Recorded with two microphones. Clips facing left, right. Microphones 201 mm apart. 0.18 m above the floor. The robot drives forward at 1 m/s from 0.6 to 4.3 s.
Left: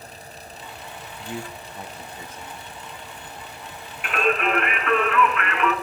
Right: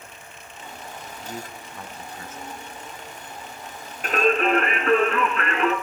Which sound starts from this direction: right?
Singing, at 4.0 s.